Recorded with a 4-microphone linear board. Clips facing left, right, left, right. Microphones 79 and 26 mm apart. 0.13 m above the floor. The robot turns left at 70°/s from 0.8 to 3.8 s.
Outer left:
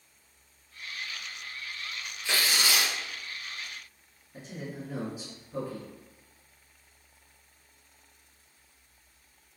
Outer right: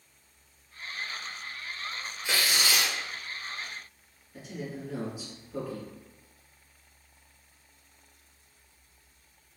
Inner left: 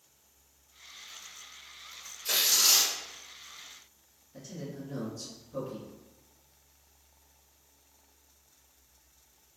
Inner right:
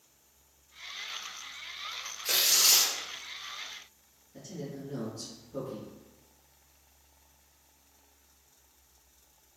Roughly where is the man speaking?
Left.